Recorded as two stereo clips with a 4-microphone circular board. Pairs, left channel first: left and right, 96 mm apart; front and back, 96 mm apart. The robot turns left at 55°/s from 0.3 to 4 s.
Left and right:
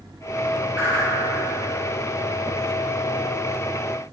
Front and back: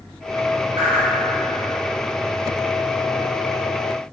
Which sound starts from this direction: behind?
A whoosh, at 0.8 s.